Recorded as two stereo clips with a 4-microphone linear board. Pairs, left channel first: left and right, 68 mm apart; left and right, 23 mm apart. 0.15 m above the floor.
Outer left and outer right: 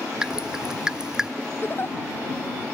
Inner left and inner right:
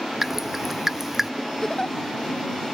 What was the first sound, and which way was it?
Dripping, 10° right (ahead or behind).